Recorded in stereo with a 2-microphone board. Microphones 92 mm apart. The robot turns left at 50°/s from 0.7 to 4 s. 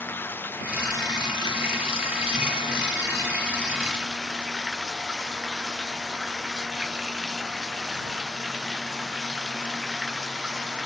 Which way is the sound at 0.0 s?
160° left.